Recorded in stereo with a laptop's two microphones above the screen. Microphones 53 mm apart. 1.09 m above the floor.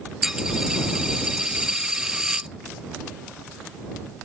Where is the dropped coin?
10° right (ahead or behind).